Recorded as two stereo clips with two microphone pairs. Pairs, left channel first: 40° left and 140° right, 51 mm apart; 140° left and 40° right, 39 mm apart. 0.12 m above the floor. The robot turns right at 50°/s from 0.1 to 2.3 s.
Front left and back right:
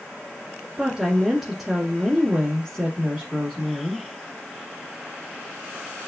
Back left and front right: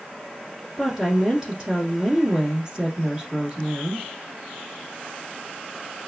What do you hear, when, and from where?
0.8 s a woman speaking: 100° right, 1.3 m; by 4.1 s 20° right, 1.3 m